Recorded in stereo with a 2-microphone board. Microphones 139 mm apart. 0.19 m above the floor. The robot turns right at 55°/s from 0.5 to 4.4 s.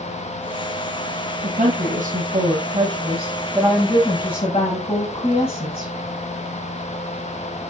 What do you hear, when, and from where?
1.4 s a woman speaking: 115° right, 4.5 m; by 5.9 s 45° left, 4.5 m